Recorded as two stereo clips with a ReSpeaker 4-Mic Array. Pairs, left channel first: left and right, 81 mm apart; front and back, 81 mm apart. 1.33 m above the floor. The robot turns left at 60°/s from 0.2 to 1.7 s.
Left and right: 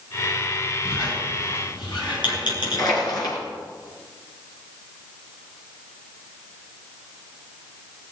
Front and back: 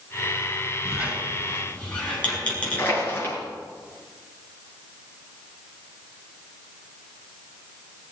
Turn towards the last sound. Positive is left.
turn(degrees=60)